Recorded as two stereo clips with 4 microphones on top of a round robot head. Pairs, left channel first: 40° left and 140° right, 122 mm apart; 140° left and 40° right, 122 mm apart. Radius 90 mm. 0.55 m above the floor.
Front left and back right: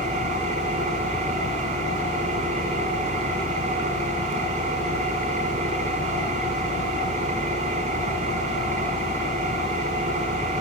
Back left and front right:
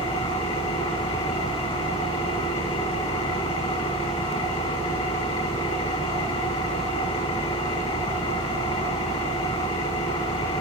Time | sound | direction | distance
0.0 | an engine running | 175° right | 4.5 m